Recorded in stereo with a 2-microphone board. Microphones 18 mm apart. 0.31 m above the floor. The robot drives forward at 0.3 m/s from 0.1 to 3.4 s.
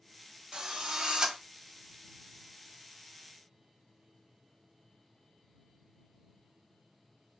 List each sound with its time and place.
0.5 s a drill: 35° right (ahead or behind), 0.7 m